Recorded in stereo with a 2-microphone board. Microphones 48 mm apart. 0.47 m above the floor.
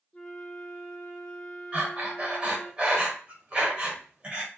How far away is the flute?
About 0.5 m.